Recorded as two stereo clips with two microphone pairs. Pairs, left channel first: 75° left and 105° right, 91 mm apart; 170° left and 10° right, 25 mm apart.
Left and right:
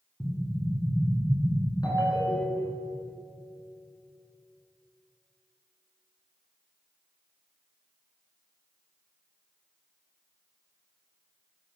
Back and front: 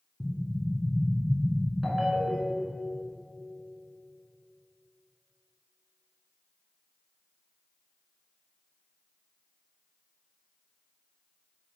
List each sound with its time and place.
0.2 s an explosion: 10° right, 1.3 m
1.8 s a ringtone: 70° left, 1.2 m